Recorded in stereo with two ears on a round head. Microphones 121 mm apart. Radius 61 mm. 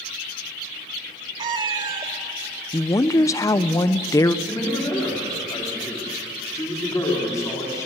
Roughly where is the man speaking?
Left.